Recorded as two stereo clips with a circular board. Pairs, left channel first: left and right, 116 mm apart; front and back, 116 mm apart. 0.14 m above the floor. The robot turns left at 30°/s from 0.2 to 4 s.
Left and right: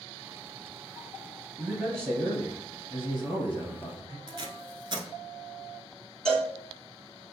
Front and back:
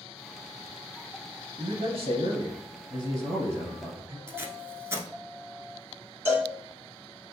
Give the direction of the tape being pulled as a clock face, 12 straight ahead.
4 o'clock.